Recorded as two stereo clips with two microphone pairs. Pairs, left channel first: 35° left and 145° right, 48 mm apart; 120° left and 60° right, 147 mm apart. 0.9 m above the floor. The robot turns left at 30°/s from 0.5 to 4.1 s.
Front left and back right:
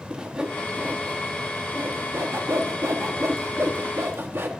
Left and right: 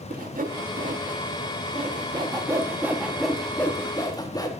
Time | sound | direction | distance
0.1 | sawing | 70° right | 0.7 m